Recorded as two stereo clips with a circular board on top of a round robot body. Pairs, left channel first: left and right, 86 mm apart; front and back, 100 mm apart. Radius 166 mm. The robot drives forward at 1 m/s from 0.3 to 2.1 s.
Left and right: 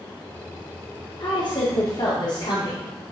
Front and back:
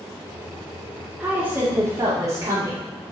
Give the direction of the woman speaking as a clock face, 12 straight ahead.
9 o'clock.